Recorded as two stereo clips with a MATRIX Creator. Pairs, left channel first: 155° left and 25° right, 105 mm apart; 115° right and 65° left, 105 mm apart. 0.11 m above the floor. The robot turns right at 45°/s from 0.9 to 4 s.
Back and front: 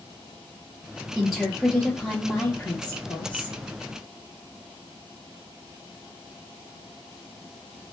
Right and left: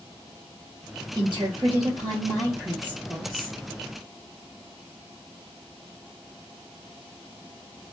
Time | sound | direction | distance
1.1 | a woman speaking | 60° left | 1.9 m